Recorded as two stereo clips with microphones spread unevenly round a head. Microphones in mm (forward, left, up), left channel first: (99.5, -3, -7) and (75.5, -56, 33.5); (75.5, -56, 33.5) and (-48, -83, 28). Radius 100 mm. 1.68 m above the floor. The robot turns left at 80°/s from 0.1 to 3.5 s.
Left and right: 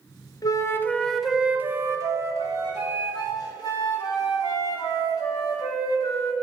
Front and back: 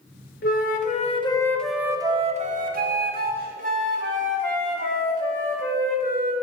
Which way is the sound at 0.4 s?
25° left.